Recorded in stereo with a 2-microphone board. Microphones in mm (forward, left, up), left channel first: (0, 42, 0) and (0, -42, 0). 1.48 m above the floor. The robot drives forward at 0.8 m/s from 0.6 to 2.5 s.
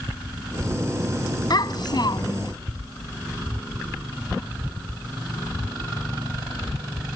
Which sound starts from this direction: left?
A child speaking, at 1.5 s.